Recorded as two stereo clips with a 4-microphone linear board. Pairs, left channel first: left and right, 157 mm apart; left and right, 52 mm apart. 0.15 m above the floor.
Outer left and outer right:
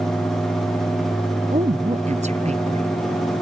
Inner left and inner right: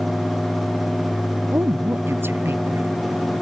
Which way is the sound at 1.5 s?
45° right (ahead or behind).